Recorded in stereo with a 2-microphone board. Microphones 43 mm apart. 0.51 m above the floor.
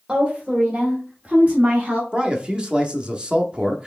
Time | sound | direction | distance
0.1 | a woman speaking | 20° right (ahead or behind) | 1.9 m
2.1 | a man speaking | 20° right (ahead or behind) | 0.7 m